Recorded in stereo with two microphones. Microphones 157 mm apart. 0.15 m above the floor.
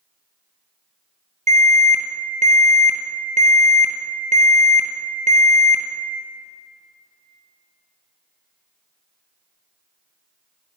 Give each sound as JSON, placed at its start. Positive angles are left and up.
{"t": 1.5, "sound": "an alarm", "side_deg": -50, "distance_m": 2.5}